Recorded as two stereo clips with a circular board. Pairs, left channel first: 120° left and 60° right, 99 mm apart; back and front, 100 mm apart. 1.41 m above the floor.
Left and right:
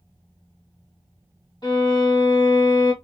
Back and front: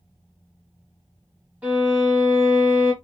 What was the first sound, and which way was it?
A violin, 75° left.